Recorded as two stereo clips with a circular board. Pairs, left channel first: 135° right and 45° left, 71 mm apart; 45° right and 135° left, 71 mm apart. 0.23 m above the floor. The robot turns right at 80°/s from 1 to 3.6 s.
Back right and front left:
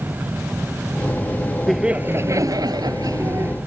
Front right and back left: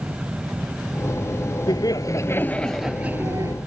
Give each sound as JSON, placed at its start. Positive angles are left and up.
{"t": 1.7, "sound": "laughter", "azimuth_deg": -45}